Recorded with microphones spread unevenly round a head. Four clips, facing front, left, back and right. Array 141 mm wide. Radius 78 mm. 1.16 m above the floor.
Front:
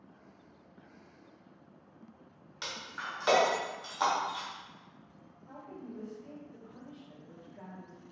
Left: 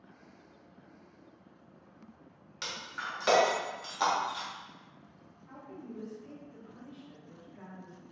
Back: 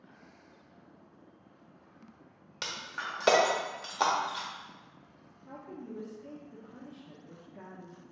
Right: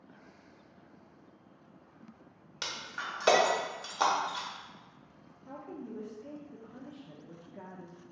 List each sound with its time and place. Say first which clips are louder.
2.6 s breaking glass: even, back 2 dB; 160° right, 1.1 m
5.5 s a woman speaking: right 3 dB, back 2 dB; 130° right, 0.8 m